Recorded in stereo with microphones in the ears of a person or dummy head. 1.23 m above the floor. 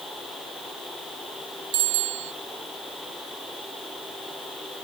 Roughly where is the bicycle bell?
Right.